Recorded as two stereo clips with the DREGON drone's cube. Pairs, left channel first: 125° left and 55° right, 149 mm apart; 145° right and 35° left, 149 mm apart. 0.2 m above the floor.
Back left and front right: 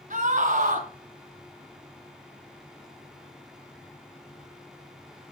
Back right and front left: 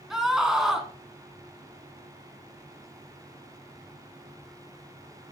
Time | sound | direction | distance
0.1 | a scream | 50° right | 1.8 m